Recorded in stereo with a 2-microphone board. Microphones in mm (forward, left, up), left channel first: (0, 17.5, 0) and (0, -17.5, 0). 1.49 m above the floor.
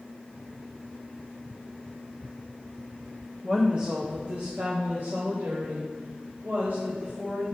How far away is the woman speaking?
About 0.9 m.